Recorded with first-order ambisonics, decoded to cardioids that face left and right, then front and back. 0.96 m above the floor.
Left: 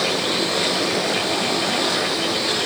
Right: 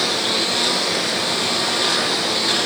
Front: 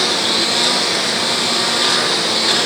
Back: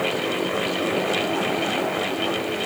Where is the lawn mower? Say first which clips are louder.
Right 1 dB, front 8 dB; 10° right.